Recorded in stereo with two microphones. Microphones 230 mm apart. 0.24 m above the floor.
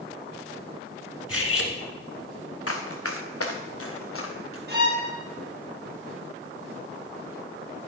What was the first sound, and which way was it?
Cutlery clinking, 70° left (ahead or behind).